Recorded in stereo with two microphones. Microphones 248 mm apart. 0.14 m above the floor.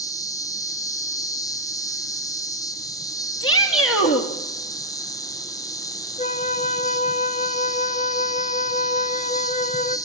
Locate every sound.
0.0 s an insect: 15° left (ahead or behind), 1.9 m
3.4 s a shout: 60° left (ahead or behind), 3 m
6.2 s a flute: 30° left (ahead or behind), 0.8 m